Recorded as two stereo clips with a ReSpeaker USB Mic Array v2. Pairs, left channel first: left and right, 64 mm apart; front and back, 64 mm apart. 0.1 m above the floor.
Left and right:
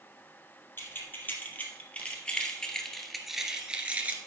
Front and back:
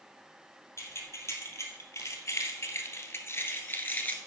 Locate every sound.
0.8 s keys jangling: 35° left, 2.5 m; by 4.2 s 45° right, 1.4 m